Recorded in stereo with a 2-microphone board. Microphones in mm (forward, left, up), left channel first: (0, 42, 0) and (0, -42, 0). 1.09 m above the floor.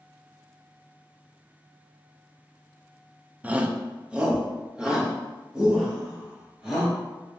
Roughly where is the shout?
Centre.